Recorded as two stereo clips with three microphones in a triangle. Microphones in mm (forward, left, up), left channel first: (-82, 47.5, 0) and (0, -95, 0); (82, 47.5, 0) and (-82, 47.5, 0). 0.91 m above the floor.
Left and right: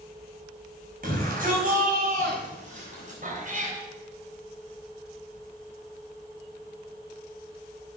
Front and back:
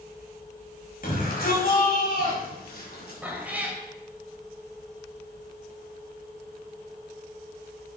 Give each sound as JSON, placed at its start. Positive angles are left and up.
{"t": 1.0, "sound": "a shout", "azimuth_deg": -30, "distance_m": 5.5}
{"t": 3.2, "sound": "a cat meowing", "azimuth_deg": -100, "distance_m": 2.5}